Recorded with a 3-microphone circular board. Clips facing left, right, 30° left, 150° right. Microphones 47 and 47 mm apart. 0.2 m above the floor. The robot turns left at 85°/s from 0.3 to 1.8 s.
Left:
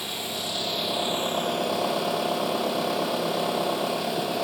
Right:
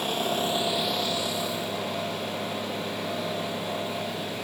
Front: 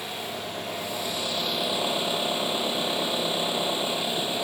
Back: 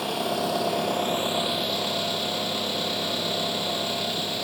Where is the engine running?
135° right, 3 m; by 4.5 s 100° left, 3 m.